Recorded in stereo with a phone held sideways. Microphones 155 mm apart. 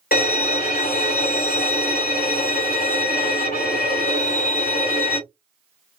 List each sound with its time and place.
0.1 s a violin: 75° left (ahead or behind), 1.9 m